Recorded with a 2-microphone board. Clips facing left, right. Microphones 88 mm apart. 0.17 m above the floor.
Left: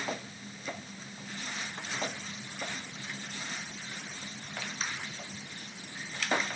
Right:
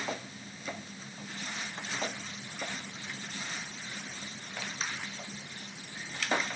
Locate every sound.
Only background noise.